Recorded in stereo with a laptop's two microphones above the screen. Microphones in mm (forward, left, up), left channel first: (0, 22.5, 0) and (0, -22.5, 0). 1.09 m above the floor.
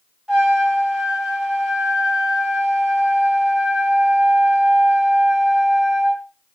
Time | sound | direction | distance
0.3 | a trumpet | 10° right (ahead or behind) | 1.3 m